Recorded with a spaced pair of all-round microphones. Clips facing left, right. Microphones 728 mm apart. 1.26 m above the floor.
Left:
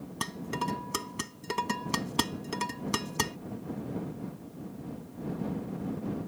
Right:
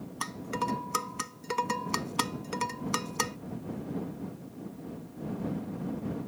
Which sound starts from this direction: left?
Dishes clattering, at 0.2 s.